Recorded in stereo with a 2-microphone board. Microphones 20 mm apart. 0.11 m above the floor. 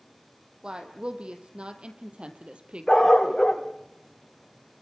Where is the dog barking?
35° left (ahead or behind), 3 m.